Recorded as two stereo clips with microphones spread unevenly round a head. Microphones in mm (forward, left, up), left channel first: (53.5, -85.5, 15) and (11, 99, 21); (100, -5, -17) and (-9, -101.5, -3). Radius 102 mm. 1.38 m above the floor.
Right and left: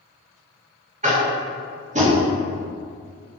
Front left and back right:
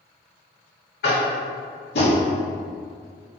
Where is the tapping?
50° left, 1.8 m.